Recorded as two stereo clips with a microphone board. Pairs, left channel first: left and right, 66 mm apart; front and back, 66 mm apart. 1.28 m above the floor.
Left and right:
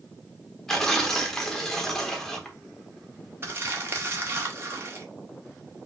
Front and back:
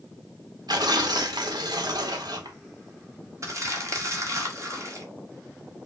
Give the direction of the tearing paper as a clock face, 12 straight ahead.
6 o'clock.